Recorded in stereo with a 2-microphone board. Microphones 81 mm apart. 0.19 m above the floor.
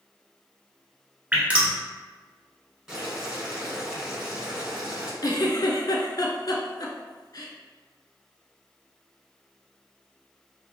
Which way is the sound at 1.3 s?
15° right (ahead or behind).